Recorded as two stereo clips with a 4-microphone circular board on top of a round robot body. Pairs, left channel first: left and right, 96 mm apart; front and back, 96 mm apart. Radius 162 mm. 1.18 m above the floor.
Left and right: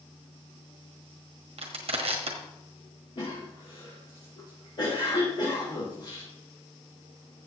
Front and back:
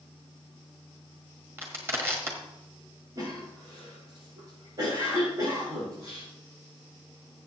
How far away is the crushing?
About 1.3 m.